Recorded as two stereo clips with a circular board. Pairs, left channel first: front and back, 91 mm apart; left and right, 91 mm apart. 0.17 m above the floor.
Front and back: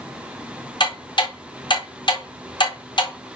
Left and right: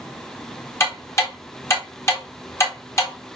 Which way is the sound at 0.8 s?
30° left.